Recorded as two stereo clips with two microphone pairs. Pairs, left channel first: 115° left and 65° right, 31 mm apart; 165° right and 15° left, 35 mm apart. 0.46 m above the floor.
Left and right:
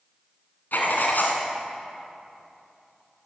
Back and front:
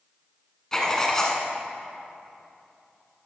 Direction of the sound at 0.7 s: 120° left.